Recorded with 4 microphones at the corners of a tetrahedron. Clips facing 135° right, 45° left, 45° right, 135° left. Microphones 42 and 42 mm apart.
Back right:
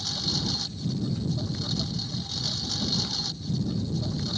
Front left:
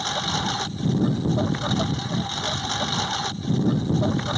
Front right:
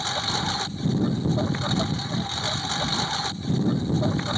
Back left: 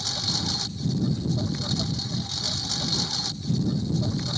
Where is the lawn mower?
10° left.